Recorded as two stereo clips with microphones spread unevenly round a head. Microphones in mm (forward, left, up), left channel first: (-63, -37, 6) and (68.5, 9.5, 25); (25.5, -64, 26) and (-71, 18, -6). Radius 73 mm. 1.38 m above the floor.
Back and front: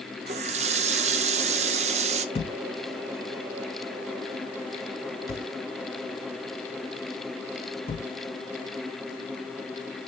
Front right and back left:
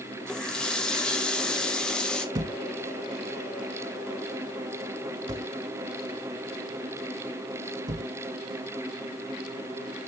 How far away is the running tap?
About 0.6 m.